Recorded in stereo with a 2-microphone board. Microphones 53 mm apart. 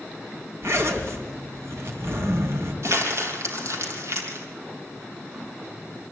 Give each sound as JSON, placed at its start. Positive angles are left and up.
{"t": 0.6, "sound": "a zipper", "side_deg": -55, "distance_m": 3.0}
{"t": 2.8, "sound": "crumpling", "side_deg": -60, "distance_m": 2.5}